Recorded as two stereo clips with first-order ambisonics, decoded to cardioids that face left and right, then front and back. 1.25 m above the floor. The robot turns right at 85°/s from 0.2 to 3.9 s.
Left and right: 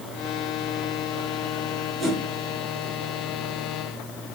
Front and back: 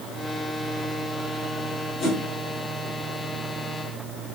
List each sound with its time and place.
2.0 s a whoosh: straight ahead, 0.8 m; by 2.2 s 15° left, 0.8 m